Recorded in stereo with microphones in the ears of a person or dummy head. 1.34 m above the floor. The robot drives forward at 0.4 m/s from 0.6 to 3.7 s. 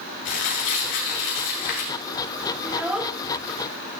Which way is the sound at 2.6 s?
5° right (ahead or behind).